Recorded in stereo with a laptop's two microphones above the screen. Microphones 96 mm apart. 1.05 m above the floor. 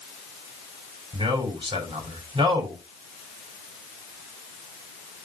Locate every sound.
1.1 s a man speaking: 75° right (ahead or behind), 5.5 m